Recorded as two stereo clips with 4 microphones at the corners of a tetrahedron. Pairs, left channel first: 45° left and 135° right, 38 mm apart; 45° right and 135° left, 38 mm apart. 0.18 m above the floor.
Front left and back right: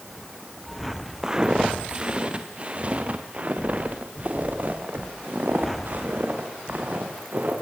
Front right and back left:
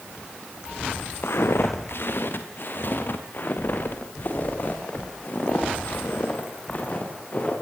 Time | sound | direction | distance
1.2 | footsteps | 60° right | 2.5 m